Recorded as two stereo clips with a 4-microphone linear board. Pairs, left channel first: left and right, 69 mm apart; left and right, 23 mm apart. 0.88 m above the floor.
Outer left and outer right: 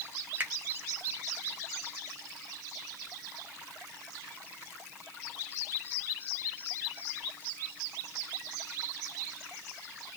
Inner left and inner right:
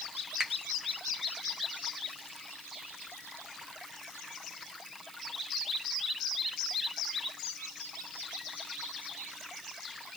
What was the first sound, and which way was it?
A finger snap, 25° right (ahead or behind).